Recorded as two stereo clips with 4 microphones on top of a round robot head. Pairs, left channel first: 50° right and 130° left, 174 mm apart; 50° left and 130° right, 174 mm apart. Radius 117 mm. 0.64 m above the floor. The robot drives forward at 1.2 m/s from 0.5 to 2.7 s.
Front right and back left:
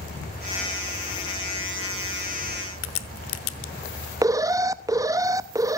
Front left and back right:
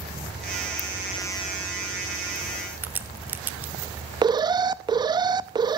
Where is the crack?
50° right, 1.0 m.